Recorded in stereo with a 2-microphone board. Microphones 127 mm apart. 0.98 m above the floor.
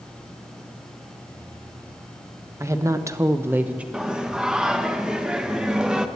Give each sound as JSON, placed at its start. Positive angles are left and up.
{"t": 2.6, "sound": "a woman speaking", "side_deg": -25, "distance_m": 0.9}
{"t": 3.9, "sound": "singing", "side_deg": -5, "distance_m": 0.7}